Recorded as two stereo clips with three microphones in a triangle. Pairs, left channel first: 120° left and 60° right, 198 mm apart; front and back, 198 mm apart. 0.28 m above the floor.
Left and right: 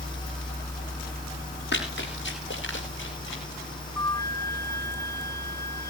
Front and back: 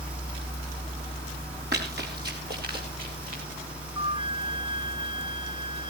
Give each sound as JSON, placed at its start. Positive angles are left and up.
{"t": 1.7, "sound": "running footsteps", "azimuth_deg": 150, "distance_m": 8.5}
{"t": 4.0, "sound": "a flute", "azimuth_deg": 175, "distance_m": 1.4}